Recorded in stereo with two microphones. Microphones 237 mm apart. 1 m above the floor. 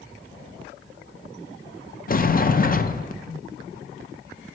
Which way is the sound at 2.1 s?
40° left (ahead or behind).